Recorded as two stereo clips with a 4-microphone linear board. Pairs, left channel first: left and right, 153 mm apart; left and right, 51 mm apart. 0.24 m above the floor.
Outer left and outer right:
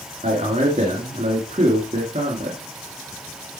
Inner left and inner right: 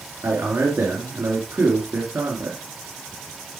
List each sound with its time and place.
0.2 s a man speaking: 50° right (ahead or behind), 3.5 m